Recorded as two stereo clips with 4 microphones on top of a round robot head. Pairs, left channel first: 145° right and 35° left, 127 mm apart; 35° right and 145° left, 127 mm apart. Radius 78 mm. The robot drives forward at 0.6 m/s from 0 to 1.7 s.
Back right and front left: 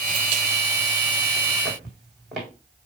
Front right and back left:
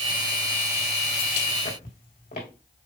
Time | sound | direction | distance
1.6 | footsteps | 55° right | 4 m